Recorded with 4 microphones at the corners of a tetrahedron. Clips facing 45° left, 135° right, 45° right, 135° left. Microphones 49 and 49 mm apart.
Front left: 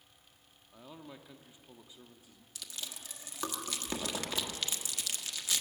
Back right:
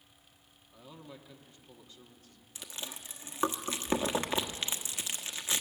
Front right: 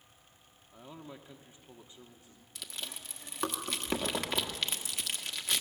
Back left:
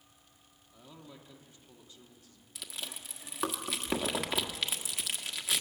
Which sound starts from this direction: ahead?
A man speaking, at 0.7 s.